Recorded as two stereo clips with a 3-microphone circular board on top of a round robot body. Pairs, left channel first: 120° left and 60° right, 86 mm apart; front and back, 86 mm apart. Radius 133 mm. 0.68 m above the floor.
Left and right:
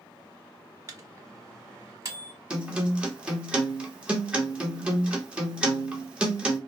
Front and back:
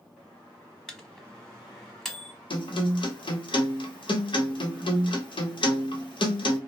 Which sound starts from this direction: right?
A microwave, at 0.9 s.